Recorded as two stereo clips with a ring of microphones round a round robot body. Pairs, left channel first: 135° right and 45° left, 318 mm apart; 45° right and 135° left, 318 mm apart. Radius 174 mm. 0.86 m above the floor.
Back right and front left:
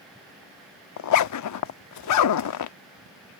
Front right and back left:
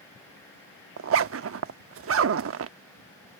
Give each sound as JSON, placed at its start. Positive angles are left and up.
{"t": 1.0, "sound": "a zipper", "azimuth_deg": -175}